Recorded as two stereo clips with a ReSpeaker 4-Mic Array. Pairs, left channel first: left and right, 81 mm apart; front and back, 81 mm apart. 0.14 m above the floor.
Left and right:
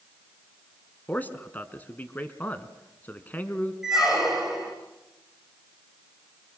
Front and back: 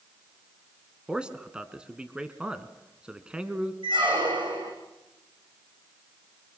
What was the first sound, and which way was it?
A man speaking, 120° left.